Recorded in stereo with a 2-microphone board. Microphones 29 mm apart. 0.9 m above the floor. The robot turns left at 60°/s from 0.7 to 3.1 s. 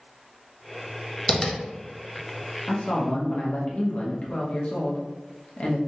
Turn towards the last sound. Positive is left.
turn(degrees=40)  # may be behind; listen again after turning